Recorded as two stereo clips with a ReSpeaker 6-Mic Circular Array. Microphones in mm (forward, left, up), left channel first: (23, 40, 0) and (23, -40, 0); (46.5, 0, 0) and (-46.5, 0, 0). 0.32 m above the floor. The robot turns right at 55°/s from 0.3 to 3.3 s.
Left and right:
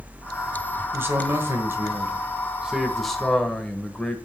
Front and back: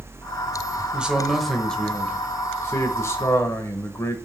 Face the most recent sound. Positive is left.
turn(degrees=15)